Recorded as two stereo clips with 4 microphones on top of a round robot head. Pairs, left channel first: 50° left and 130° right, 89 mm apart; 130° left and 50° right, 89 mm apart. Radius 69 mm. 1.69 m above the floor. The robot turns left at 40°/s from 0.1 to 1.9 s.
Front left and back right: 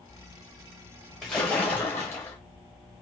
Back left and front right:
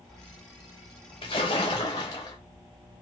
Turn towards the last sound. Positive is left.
turn(degrees=110)